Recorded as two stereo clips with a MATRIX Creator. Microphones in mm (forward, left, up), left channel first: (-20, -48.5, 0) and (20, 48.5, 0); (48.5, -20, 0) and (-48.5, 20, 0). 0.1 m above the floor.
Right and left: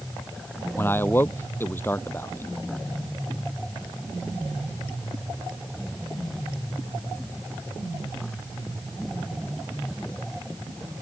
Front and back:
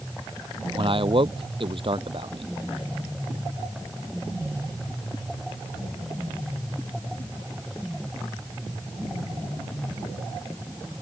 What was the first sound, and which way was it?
A man speaking, straight behind.